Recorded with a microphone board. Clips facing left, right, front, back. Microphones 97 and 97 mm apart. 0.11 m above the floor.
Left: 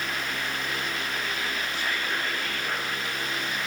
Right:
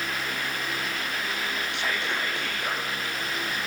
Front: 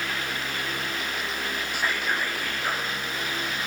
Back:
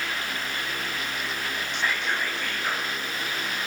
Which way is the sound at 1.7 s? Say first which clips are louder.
Right 1 dB, even; 80° right.